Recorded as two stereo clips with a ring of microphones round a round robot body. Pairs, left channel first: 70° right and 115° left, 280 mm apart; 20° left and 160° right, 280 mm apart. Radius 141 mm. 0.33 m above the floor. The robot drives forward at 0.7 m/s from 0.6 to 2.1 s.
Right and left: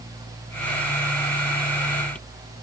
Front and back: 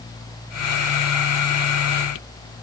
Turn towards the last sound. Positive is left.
No sound to turn to.